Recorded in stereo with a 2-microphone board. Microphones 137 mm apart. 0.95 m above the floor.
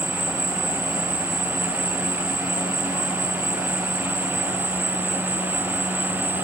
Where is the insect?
40° left (ahead or behind), 2 m.